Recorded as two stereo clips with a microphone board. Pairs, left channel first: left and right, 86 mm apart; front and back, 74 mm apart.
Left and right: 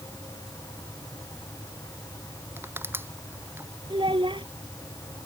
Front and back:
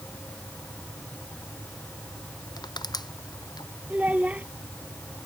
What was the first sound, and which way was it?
Crushing, 25° right.